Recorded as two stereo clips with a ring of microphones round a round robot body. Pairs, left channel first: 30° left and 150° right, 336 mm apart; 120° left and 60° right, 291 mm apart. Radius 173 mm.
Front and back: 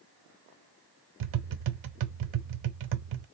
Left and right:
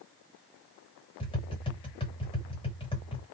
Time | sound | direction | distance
1.2 | tapping | 170° right | 0.6 m